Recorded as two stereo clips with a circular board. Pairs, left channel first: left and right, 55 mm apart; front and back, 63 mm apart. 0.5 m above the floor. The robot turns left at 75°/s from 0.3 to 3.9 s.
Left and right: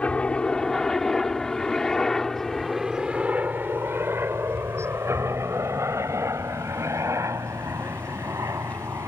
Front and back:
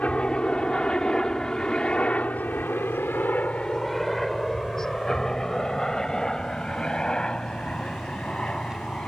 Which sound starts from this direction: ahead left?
A helicopter, at 0.0 s.